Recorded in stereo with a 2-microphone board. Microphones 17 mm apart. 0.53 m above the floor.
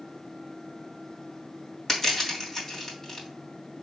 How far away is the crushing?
About 2.5 m.